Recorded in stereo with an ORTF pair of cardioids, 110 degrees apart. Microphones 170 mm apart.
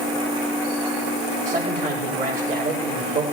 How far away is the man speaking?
About 5.5 m.